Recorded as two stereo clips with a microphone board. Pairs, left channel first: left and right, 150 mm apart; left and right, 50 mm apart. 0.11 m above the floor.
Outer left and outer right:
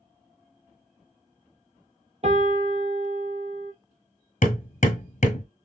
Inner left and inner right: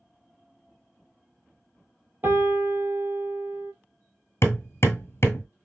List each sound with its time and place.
2.2 s a piano: 50° right (ahead or behind), 0.8 m
4.4 s hammering: 55° left (ahead or behind), 1.2 m